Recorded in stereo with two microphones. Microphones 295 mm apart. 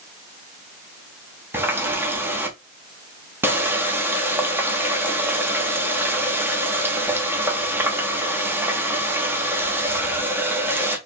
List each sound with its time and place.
1.5 s a running tap: 5° right (ahead or behind), 0.9 m